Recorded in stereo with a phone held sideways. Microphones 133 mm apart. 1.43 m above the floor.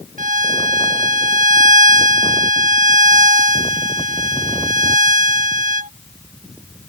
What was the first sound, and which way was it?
A violin, 70° right (ahead or behind).